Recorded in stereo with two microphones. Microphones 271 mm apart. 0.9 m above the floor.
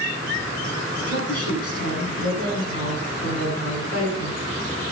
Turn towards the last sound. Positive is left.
turn(degrees=65)  # may be behind; listen again after turning